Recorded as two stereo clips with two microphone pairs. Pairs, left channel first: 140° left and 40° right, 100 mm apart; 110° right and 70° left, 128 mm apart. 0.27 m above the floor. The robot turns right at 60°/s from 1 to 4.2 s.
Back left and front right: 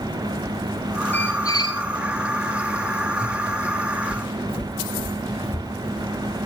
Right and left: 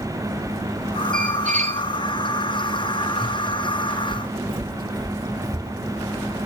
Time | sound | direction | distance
1.1 | a squeak | 65° left | 1.2 m
4.1 | footsteps | 100° left | 0.8 m